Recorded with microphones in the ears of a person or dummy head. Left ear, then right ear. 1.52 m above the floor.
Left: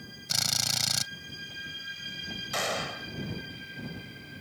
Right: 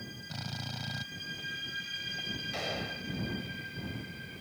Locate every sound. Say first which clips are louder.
0.3 s a drill: left 15 dB; 70° left (ahead or behind)
2.5 s a gunshot: left 5 dB; 50° left (ahead or behind)